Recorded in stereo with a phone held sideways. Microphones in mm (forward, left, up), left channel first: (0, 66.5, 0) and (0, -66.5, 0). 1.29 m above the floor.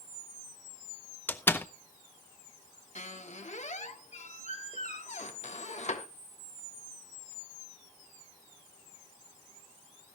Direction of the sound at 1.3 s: 15° left (ahead or behind).